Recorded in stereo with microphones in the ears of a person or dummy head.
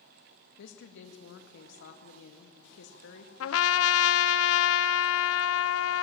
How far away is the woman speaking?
About 1.9 m.